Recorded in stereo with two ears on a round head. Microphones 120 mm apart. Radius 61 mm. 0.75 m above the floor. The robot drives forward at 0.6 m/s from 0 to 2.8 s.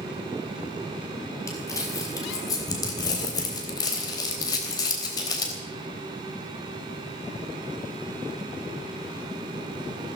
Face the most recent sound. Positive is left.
turn(degrees=30)  # may be behind; listen again after turning